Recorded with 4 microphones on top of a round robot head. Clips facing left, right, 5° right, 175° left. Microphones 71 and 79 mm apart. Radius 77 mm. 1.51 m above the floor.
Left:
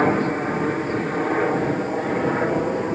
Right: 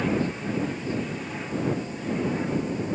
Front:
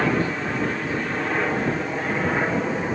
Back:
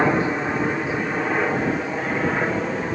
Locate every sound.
0.0 s a helicopter: 110° left; by 3.0 s 80° left